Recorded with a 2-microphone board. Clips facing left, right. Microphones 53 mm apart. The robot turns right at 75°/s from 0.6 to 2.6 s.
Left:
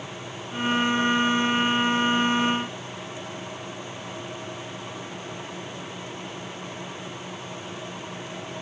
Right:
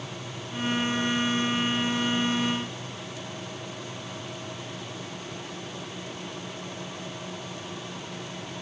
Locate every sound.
Only background noise.